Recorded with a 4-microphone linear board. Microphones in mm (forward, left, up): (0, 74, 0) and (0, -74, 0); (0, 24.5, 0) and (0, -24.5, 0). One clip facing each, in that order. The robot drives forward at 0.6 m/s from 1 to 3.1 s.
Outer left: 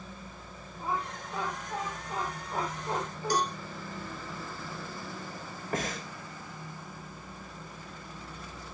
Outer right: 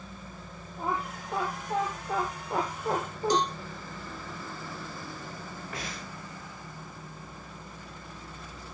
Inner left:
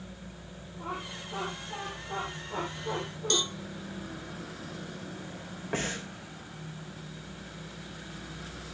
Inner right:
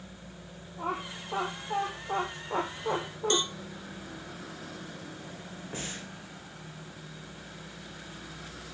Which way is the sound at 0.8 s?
65° right (ahead or behind).